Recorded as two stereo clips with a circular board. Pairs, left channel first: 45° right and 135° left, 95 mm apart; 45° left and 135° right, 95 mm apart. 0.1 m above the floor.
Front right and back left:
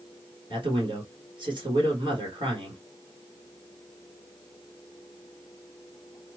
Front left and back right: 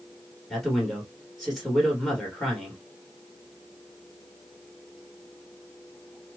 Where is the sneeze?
No sneeze in this recording.